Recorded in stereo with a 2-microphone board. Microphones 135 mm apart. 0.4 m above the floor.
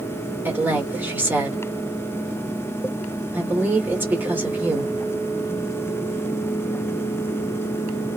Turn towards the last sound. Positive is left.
turn(degrees=-15)  # may be behind; listen again after turning